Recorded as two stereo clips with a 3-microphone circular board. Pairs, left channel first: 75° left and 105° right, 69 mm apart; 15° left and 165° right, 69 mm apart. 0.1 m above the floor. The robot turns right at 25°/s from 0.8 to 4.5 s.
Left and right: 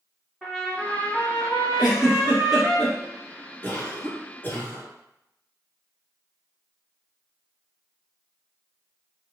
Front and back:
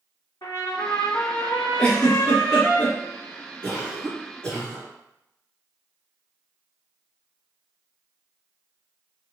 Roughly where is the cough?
Ahead left.